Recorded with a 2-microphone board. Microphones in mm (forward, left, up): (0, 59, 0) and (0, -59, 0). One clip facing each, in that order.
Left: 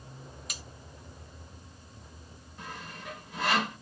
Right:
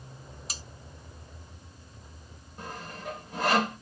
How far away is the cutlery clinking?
About 0.6 m.